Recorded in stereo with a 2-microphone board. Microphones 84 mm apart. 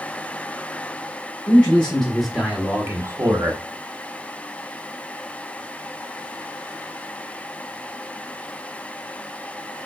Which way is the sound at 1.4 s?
20° left (ahead or behind).